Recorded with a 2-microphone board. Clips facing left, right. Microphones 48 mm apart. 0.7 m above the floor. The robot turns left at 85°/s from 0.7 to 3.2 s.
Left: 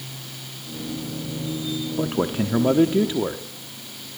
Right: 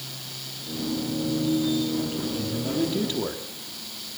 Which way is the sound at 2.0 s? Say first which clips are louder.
Left 5 dB; 125° left.